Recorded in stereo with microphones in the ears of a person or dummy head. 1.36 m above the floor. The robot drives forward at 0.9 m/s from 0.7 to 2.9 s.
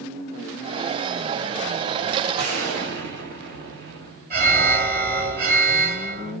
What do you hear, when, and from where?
2.4 s an explosion: 75° right (ahead or behind), 1.5 m; by 4.2 s 60° right (ahead or behind), 1.7 m
4.3 s an alarm: 50° right (ahead or behind), 2.5 m